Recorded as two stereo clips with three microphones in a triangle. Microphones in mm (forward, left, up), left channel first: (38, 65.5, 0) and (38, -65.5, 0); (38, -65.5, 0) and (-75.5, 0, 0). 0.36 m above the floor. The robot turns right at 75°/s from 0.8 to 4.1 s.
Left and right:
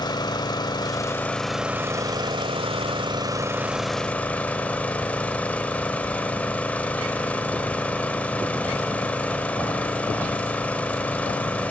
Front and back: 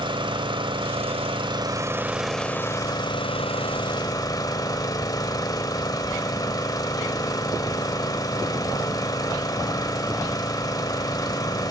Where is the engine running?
130° left, 1.5 m; by 11.7 s 15° left, 1.5 m.